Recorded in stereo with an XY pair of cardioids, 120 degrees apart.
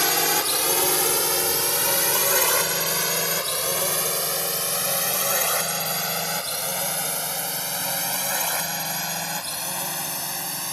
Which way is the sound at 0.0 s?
Straight ahead.